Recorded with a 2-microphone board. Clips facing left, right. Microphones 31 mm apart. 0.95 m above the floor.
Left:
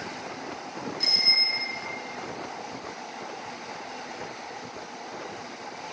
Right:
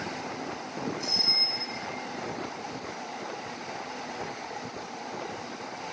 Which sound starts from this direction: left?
A bicycle bell, at 1.0 s.